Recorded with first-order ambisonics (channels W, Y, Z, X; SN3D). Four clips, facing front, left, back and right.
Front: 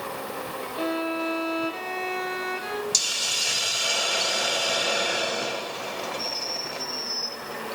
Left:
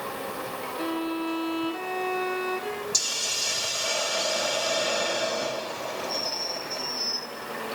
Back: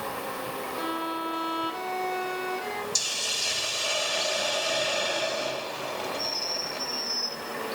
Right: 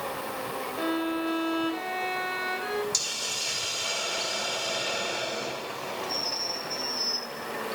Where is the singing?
I don't hear singing.